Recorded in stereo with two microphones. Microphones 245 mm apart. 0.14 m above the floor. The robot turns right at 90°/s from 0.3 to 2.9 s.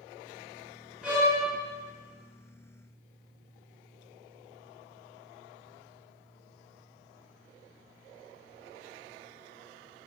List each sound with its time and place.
1.0 s a violin: 175° right, 1.5 m; by 1.4 s 140° right, 1.5 m